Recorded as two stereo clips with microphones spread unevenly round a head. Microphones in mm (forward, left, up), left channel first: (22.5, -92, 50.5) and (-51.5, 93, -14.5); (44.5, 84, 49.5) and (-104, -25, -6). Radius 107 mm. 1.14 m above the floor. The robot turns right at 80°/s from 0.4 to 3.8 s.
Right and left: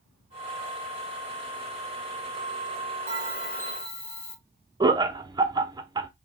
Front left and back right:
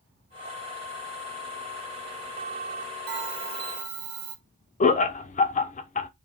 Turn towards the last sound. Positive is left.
turn(degrees=90)